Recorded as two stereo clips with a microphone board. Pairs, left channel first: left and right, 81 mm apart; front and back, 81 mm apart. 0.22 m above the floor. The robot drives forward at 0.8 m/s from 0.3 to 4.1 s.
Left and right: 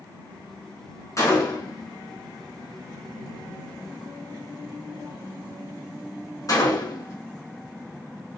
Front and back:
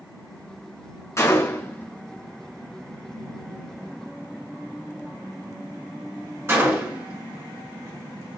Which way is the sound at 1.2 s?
45° left.